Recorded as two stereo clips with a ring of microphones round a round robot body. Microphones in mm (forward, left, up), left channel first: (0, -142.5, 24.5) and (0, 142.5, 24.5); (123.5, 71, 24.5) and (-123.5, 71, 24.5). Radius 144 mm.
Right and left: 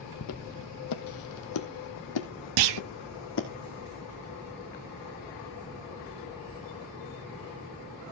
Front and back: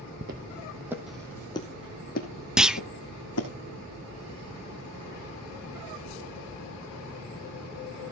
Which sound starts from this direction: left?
A clunk, at 2.6 s.